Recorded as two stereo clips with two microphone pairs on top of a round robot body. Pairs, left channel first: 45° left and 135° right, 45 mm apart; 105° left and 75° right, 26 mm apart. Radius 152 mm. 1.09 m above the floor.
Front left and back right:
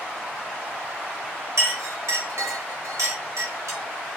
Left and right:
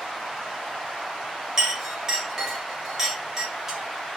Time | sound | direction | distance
1.6 | a clink | 145° right | 1.1 m